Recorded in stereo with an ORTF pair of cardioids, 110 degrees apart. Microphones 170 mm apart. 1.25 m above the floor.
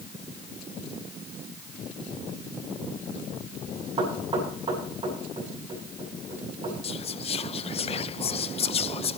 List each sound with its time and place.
4.0 s knocking: 30° right, 8.5 m
6.8 s whispering: 35° left, 0.8 m